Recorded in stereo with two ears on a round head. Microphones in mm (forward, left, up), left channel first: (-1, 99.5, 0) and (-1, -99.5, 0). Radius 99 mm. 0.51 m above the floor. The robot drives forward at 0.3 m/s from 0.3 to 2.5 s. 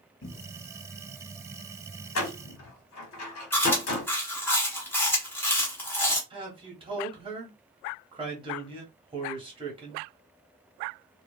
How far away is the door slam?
About 1.3 m.